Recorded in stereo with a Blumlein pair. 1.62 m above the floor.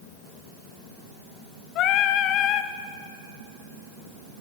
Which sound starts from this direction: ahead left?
Singing, at 1.8 s.